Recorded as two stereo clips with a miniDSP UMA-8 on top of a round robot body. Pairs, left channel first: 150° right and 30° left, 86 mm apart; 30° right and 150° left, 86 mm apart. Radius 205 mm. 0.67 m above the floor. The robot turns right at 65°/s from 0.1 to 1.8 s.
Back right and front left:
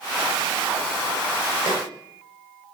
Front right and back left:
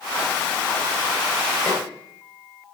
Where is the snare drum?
40° left, 2.5 m; by 1.8 s 50° left, 2.5 m.